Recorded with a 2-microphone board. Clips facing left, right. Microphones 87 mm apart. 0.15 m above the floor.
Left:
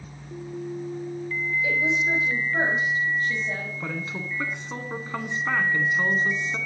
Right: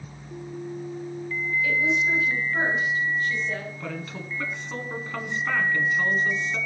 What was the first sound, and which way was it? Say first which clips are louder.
A woman speaking: right 1 dB; 25° left (ahead or behind).